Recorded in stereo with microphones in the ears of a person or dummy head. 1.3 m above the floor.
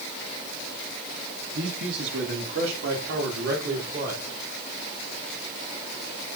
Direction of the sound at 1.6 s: 70° right (ahead or behind).